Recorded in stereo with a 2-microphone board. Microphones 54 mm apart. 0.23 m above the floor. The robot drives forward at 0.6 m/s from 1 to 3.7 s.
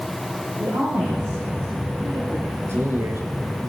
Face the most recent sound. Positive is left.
turn(degrees=-65)  # may be behind; listen again after turning